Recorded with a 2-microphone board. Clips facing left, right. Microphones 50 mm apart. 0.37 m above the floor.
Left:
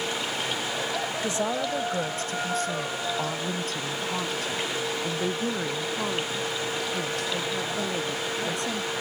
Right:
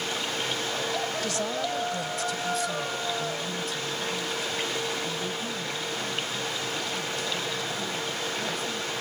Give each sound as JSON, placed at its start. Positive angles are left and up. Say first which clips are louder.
{"t": 1.2, "sound": "a woman speaking", "louder": "left 2 dB", "side_deg": 25}